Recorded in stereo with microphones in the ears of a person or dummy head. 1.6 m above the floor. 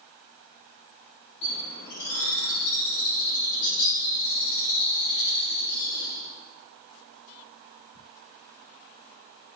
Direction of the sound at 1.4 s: 55° left (ahead or behind).